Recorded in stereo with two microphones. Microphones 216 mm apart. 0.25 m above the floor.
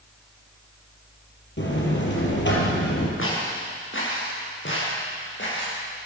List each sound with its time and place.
1.6 s a buzzer: 60° left (ahead or behind), 3.5 m
3.2 s footsteps: 70° left (ahead or behind), 6.5 m; by 5.8 s 60° left (ahead or behind), 8.5 m